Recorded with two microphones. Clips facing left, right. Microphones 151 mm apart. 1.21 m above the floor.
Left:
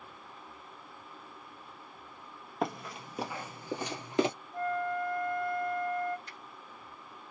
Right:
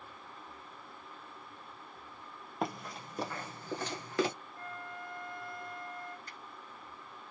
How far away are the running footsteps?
About 1.7 m.